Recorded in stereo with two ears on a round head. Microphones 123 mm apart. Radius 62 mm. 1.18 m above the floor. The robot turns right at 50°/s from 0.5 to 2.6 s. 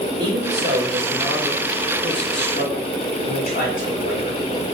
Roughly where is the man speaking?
Ahead right.